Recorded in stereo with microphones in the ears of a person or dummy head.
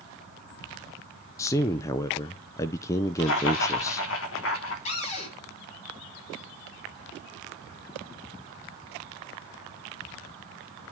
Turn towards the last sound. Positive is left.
turn(degrees=35)  # may be behind; listen again after turning